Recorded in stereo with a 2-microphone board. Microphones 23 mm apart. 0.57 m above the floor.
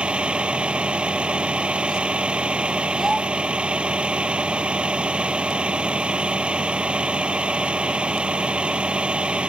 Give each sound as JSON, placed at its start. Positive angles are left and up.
{"t": 0.0, "sound": "a vehicle", "side_deg": -50}
{"t": 3.0, "sound": "a child speaking", "side_deg": -10}